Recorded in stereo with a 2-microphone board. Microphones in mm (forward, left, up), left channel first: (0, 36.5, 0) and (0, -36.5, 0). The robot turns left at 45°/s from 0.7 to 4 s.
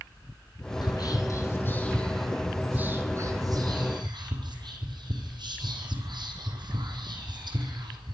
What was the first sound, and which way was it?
Whispering, 60° left (ahead or behind).